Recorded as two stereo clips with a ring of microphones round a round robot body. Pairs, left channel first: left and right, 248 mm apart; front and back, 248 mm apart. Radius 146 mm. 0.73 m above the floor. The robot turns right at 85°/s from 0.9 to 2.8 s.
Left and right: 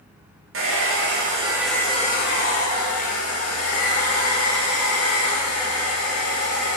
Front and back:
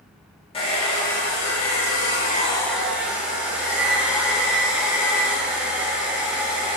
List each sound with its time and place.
0.5 s a hair dryer: 65° right, 1.1 m; by 6.8 s 95° left, 1.1 m